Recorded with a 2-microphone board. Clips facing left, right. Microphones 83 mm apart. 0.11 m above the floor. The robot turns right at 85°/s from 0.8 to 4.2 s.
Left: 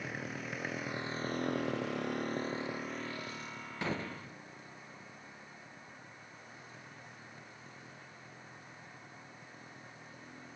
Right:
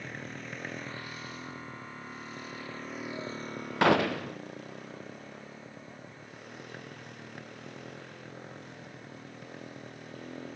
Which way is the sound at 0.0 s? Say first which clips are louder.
Even; 5° left (ahead or behind).